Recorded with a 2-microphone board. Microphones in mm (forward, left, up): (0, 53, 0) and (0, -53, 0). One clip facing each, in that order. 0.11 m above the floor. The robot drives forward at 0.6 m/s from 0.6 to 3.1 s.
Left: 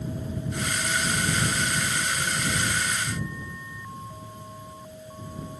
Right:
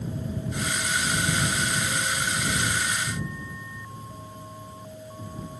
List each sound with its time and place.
Only background noise.